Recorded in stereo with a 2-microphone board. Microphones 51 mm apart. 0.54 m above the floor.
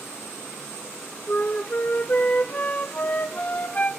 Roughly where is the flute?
Left.